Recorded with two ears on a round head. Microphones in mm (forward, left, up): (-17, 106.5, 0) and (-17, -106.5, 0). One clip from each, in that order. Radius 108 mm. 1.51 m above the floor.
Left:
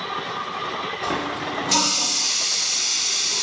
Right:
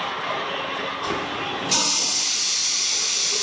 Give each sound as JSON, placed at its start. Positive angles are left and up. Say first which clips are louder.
{"t": 1.0, "sound": "a running tap", "louder": "even", "side_deg": 5, "distance_m": 0.7}